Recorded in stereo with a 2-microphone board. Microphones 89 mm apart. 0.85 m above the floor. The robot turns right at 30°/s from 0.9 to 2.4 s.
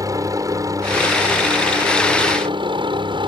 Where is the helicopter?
135° right; by 3.3 s 90° right.